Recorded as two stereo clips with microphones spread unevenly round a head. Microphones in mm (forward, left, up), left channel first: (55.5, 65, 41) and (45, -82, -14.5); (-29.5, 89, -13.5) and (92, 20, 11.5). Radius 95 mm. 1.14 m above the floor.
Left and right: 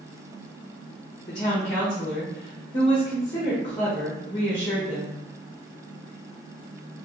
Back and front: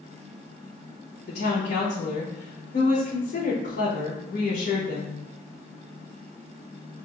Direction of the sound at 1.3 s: 155° left.